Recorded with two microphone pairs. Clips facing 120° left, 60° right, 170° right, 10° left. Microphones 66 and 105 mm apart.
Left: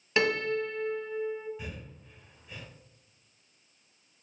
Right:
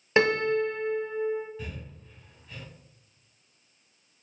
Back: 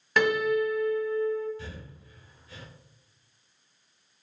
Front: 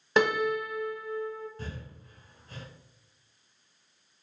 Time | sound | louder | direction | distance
0.2 | a piano | right 5 dB, back 2 dB | 30° right | 0.9 m
1.6 | breathing | right 2 dB, front 1 dB | 45° left | 1.1 m